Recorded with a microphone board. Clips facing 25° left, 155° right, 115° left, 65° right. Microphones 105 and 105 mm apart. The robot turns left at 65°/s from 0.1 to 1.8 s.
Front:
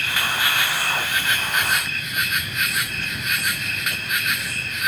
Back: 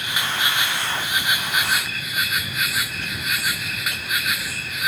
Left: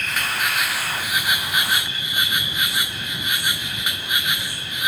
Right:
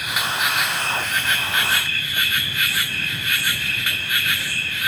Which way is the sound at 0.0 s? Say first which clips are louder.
Front 1 dB, right 1 dB; 125° right.